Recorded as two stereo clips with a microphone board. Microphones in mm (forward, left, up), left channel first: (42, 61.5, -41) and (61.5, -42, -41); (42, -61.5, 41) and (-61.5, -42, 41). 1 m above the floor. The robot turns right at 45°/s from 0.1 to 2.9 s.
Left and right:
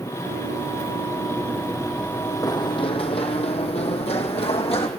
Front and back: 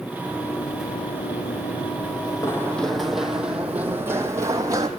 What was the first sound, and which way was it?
Running footsteps, 85° right.